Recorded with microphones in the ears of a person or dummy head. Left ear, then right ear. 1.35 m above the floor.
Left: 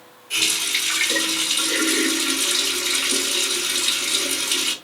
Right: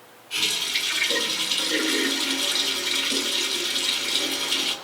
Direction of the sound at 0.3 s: 40° left (ahead or behind).